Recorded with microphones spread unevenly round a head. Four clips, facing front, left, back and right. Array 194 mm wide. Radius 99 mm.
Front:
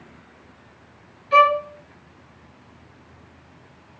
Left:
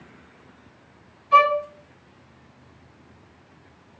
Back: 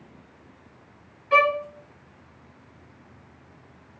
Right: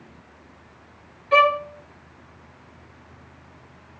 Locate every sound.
1.3 s a violin: 120° right, 1.8 m